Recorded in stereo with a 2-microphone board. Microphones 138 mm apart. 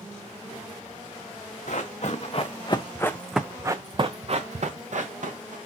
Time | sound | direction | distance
1.7 | running footsteps | 60° left (ahead or behind) | 1.0 m